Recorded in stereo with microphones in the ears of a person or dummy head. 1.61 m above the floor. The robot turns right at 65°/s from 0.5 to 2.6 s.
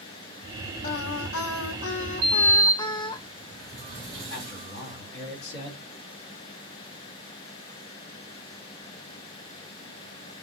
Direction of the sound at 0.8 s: 45° left.